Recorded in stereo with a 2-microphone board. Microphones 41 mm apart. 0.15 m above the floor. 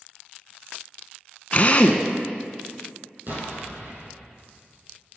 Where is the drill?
35° left (ahead or behind), 0.5 m.